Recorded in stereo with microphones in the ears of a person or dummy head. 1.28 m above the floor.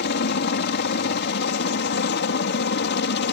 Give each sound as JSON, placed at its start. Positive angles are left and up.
{"t": 0.0, "sound": "a helicopter", "side_deg": 50}